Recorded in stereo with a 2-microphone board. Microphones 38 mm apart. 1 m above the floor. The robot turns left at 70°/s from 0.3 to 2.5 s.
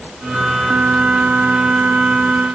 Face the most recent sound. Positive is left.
No sound to turn to.